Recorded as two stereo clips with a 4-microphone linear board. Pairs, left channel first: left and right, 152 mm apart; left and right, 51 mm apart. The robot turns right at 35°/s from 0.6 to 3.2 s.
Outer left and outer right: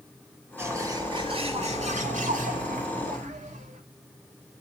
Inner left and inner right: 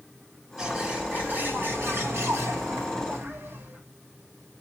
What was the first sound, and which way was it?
A bird, 160° right.